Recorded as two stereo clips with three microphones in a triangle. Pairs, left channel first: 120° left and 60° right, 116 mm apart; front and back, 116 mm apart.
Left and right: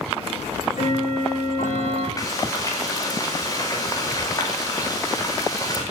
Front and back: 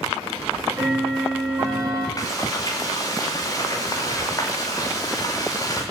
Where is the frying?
60° left, 7 m.